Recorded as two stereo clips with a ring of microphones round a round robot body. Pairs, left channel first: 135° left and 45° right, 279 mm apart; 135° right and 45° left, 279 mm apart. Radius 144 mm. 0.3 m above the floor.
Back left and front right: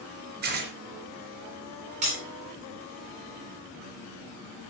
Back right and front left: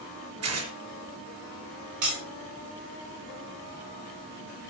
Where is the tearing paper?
10° left, 4 m.